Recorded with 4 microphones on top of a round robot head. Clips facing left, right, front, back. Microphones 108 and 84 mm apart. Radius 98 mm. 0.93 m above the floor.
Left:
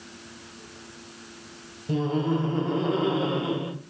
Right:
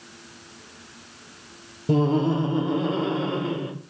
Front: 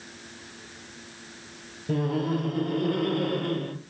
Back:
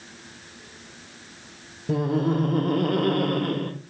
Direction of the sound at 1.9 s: 105° right.